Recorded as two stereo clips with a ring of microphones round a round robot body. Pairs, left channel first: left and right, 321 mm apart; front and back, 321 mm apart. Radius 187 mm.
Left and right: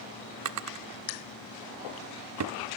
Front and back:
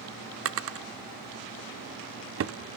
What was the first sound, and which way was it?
A drawer, 130° right.